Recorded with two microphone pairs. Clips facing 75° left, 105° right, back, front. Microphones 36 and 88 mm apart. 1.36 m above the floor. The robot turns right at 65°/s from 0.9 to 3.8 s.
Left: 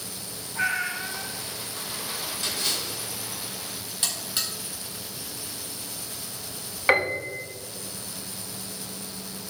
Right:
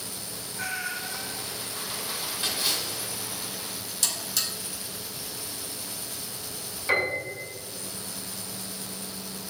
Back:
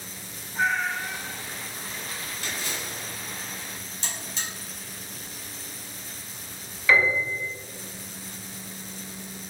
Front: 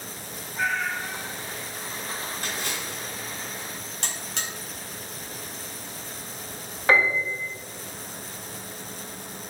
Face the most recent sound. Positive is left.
turn(degrees=40)